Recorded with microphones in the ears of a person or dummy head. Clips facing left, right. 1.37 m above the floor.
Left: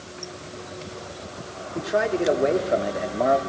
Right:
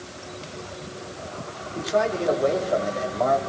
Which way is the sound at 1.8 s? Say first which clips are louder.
Even; 25° left (ahead or behind).